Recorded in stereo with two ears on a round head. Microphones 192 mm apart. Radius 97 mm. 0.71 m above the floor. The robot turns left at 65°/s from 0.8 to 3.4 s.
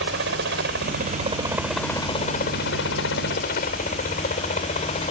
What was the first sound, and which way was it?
A helicopter, 60° right (ahead or behind).